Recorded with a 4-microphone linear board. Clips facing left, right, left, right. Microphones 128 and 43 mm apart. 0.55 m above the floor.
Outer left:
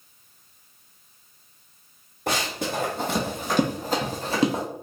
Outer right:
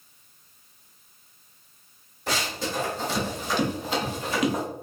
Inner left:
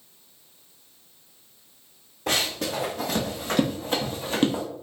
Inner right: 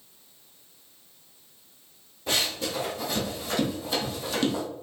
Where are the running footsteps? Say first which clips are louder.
Outer left 2 dB, inner left 2 dB; 70° left (ahead or behind), 1.4 m; by 4.6 s 30° left (ahead or behind), 1.1 m.